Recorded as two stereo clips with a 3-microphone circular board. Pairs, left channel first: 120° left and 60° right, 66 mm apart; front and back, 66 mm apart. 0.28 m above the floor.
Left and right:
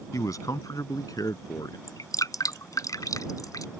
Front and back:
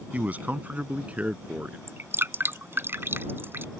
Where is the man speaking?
120° left; by 1.8 s 115° left.